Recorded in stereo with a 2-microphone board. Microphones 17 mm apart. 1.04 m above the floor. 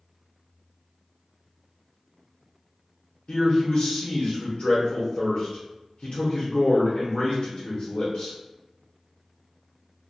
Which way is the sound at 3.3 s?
60° left (ahead or behind).